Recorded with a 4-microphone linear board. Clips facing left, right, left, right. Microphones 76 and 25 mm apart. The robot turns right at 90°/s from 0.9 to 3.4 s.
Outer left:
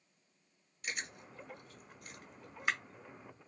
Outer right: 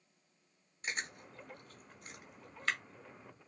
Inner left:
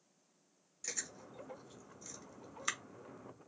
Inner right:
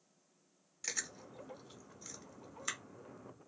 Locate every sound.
0.8 s chewing: 30° right (ahead or behind), 0.8 m; by 2.8 s 25° left (ahead or behind), 0.8 m